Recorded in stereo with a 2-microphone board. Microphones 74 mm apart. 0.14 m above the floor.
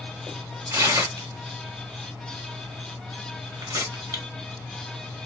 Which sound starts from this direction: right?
Tearing paper, at 0.7 s.